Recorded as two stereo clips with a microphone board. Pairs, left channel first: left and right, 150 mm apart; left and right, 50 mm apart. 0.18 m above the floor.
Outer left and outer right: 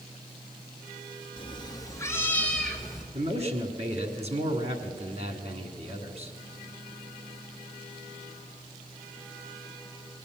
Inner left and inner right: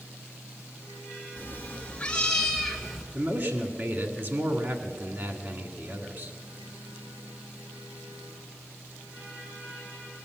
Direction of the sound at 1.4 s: 35° left (ahead or behind).